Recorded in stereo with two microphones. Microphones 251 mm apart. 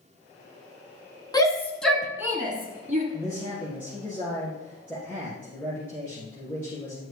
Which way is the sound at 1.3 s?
15° left (ahead or behind).